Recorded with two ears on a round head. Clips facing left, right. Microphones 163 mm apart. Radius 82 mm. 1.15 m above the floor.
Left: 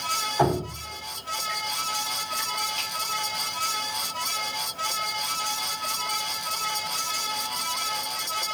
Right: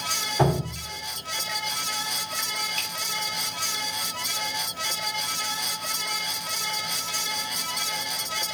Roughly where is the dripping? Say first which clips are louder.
Even; right.